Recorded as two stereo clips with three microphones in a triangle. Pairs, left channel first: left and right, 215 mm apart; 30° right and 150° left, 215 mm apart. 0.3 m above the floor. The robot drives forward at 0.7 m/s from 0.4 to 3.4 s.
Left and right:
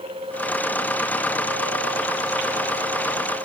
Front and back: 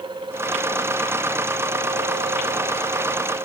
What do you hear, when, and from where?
Only background noise.